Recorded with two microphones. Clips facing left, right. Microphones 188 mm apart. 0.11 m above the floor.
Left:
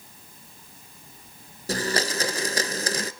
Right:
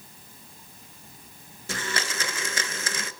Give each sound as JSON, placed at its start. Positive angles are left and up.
{"t": 1.7, "sound": "a blender", "side_deg": 40, "distance_m": 0.8}